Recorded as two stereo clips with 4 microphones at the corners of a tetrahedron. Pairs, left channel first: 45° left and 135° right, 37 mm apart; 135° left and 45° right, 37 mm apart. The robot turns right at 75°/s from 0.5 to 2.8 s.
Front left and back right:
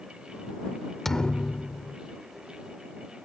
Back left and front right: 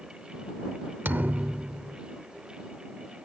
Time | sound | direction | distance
1.1 | a thud | 40° right | ?